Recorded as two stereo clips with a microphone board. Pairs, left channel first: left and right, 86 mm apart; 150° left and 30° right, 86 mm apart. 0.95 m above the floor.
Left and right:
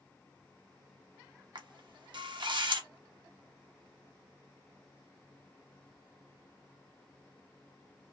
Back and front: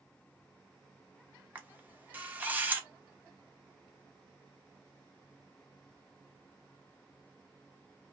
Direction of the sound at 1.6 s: 100° right.